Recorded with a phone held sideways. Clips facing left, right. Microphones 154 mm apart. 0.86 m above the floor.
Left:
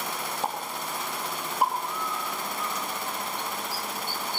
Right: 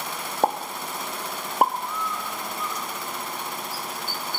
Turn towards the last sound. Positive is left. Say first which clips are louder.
# right 1 dB
turn(degrees=30)  # may be behind; listen again after turning